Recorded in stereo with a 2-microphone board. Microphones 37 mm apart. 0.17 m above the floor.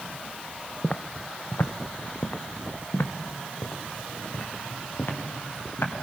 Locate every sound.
0.8 s footsteps: 30° left (ahead or behind), 0.5 m; by 5.9 s 75° left (ahead or behind), 4 m